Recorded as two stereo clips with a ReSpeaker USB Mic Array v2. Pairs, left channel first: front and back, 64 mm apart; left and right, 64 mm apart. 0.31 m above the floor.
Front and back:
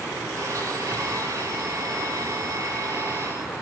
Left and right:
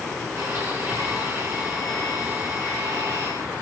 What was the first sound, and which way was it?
A blender, 145° right.